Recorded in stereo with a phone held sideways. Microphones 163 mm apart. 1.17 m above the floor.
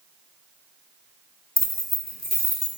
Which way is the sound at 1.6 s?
60° left (ahead or behind).